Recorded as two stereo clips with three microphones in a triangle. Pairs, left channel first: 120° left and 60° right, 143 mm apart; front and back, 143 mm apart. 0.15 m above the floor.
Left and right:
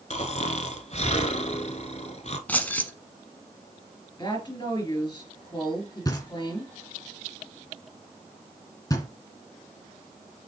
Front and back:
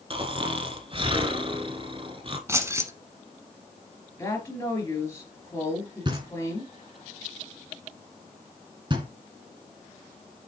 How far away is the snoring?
About 1.0 m.